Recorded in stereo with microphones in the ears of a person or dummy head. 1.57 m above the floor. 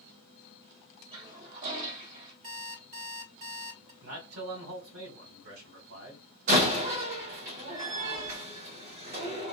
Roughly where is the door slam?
Right.